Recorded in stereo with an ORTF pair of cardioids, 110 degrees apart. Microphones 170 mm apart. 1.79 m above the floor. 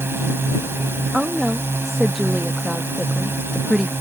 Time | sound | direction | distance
0.0 | a drone | 15° right | ?
1.1 | a woman speaking | straight ahead | ?